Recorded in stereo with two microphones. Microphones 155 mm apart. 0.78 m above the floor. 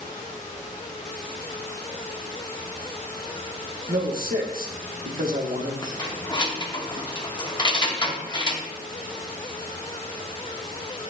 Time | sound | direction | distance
3.9 | a man speaking | 65° right (ahead or behind) | 1.2 m
5.8 | keys jangling | 30° left (ahead or behind) | 0.9 m